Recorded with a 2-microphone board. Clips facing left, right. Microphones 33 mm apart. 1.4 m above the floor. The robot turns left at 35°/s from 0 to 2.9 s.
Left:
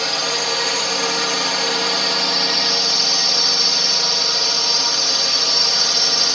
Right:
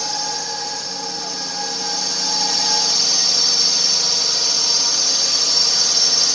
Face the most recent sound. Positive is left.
turn(degrees=25)